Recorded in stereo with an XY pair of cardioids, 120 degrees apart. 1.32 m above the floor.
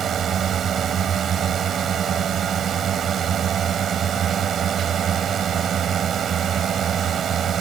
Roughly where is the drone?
Ahead right.